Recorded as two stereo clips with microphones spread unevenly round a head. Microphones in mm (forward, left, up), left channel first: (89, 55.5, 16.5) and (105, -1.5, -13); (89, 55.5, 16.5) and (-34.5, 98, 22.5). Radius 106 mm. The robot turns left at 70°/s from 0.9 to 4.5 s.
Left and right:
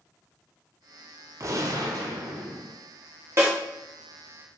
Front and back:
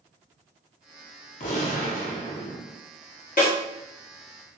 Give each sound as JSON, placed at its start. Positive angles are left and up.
{"t": 1.4, "sound": "a gunshot", "azimuth_deg": -15, "distance_m": 0.7}
{"t": 3.4, "sound": "a snare drum", "azimuth_deg": -20, "distance_m": 1.3}